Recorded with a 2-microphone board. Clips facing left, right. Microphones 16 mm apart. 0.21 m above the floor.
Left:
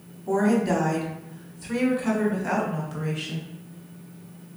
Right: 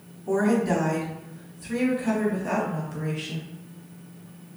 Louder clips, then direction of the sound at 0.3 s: Left 1 dB; 5° left (ahead or behind).